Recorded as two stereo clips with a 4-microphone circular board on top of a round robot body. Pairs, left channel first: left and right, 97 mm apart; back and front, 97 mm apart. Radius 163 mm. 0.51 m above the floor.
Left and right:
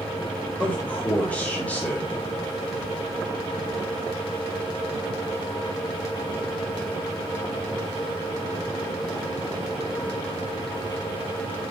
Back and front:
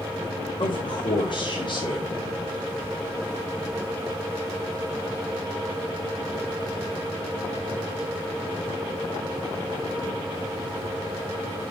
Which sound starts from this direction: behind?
A man speaking, at 0.6 s.